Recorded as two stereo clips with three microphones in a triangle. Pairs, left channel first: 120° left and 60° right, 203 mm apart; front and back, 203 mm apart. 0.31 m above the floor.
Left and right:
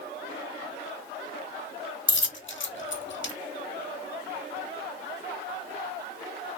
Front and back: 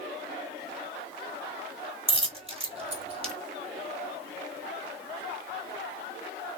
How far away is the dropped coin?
About 0.7 m.